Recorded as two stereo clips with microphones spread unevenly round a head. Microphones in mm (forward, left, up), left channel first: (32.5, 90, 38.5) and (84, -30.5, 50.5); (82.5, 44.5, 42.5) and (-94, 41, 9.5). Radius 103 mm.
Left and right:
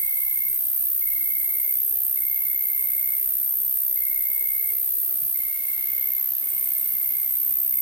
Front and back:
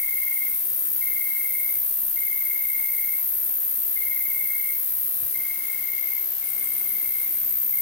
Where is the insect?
15° right, 1.3 m.